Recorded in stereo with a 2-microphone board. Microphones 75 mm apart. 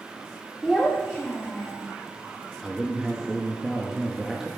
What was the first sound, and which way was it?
A child speaking, 5° right (ahead or behind).